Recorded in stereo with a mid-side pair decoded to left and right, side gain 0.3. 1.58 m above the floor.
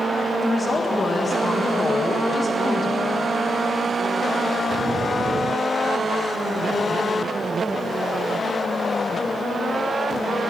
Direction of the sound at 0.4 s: 40° left.